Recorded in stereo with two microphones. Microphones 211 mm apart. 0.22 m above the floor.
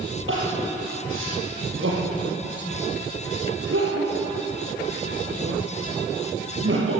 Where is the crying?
75° right (ahead or behind), 7.5 m.